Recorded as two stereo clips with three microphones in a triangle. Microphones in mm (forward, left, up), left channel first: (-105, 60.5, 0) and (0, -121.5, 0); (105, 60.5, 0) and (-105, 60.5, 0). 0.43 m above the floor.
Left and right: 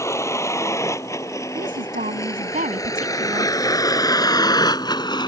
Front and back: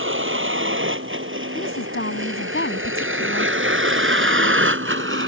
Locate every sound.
0.0 s a vehicle: 165° right; by 5.3 s 170° right
1.6 s a woman speaking: 15° right